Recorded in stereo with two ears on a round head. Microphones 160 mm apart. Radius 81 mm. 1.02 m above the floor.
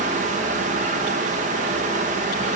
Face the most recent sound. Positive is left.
No sound to turn to.